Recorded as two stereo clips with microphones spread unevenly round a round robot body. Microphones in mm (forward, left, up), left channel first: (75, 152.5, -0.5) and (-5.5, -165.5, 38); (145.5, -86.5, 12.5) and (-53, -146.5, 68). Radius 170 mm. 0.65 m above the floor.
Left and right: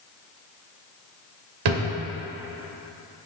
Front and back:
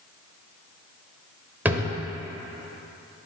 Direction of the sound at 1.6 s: 85° right.